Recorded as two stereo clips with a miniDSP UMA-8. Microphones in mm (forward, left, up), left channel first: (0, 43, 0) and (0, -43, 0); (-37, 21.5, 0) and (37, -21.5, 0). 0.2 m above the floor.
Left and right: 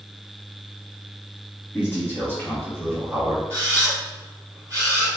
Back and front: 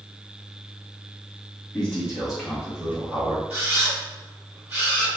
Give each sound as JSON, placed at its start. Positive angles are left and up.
{"t": 1.7, "sound": "a man speaking", "azimuth_deg": 80, "distance_m": 1.7}
{"t": 3.5, "sound": "a camera shutter", "azimuth_deg": -70, "distance_m": 1.9}